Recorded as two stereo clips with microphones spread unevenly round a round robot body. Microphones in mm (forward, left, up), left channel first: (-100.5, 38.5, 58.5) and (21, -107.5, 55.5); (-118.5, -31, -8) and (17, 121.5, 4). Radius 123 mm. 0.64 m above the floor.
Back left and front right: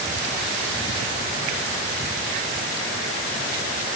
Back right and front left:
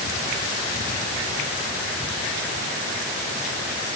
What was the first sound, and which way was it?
Only background noise.